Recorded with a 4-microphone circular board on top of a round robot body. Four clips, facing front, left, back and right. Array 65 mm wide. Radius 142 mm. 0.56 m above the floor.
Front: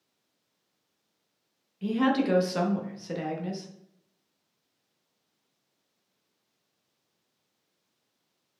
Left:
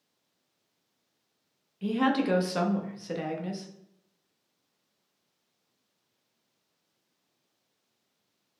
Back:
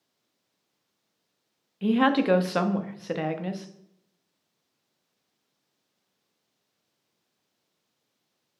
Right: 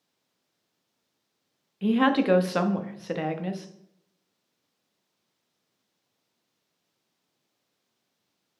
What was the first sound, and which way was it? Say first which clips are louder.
A woman speaking: right 4 dB, back 3 dB; 140° right.